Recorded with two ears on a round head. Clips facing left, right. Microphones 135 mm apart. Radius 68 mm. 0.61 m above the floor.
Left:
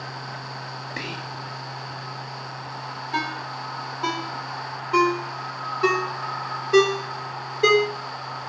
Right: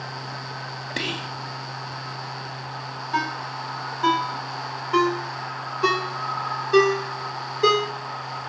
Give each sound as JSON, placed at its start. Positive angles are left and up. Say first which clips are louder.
{"t": 1.0, "sound": "whispering", "louder": "right 5 dB", "side_deg": -35, "distance_m": 0.8}
{"t": 3.1, "sound": "a ringtone", "louder": "right 2 dB", "side_deg": 10, "distance_m": 1.5}